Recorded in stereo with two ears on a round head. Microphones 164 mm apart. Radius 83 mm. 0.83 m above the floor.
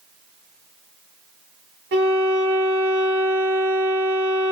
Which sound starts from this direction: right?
A violin, at 1.9 s.